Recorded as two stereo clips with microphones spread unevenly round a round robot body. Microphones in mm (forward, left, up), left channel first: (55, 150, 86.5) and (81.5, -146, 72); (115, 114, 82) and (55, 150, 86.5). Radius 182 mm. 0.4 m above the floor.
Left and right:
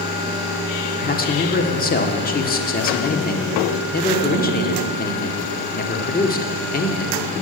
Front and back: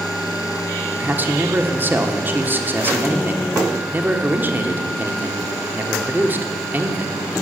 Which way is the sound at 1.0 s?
115° left.